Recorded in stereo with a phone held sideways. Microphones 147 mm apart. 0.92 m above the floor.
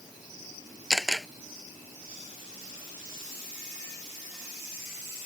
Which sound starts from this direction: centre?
A camera shutter, at 0.9 s.